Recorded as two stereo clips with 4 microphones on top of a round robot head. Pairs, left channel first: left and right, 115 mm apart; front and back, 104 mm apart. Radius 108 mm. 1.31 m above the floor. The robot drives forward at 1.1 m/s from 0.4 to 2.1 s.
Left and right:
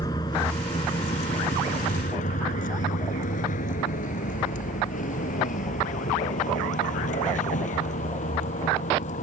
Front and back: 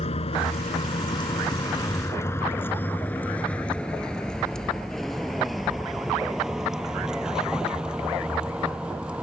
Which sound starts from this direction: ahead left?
A vehicle, at 0.0 s.